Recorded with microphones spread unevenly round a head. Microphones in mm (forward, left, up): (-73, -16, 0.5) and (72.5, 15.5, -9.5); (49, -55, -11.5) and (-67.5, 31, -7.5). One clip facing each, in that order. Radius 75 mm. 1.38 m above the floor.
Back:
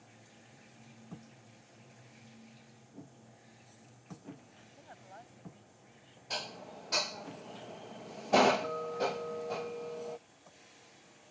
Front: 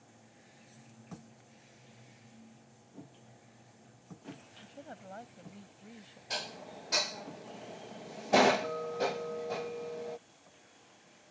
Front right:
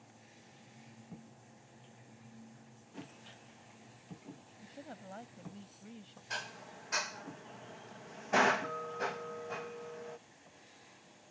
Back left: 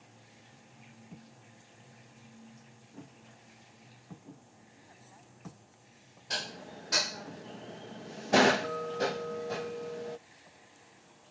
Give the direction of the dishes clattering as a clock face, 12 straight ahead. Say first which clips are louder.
Even, back left 5 dB; 9 o'clock.